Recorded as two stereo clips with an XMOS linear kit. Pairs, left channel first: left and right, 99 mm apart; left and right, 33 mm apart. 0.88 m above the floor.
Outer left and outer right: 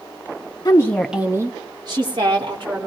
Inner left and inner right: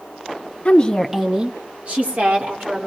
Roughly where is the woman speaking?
Left.